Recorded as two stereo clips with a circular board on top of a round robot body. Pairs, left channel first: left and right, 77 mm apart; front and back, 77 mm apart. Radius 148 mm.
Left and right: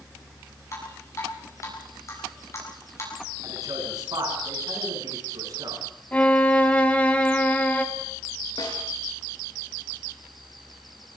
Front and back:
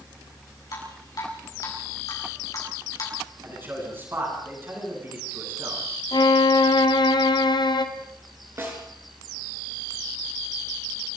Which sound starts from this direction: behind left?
A snare drum, at 8.6 s.